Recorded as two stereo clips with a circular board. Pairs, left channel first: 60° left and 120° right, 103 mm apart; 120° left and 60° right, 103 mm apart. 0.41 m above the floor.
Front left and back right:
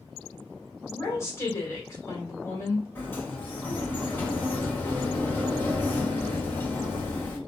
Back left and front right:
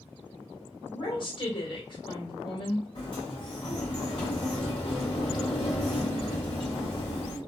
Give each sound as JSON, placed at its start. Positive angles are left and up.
{"t": 0.8, "sound": "a woman speaking", "azimuth_deg": 115, "distance_m": 1.6}
{"t": 3.0, "sound": "a sliding door", "azimuth_deg": 125, "distance_m": 1.4}